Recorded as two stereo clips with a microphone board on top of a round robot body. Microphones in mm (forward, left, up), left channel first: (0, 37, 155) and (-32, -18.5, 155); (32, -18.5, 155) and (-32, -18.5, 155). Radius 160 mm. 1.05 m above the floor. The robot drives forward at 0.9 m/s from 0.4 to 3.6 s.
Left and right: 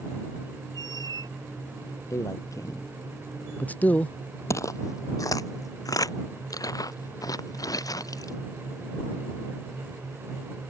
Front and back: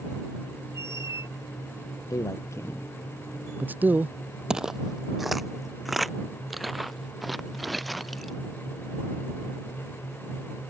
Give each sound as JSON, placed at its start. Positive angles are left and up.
{"t": 0.8, "sound": "a squeak", "azimuth_deg": -135}
{"t": 2.1, "sound": "a man speaking", "azimuth_deg": 25}
{"t": 4.5, "sound": "footsteps", "azimuth_deg": 100}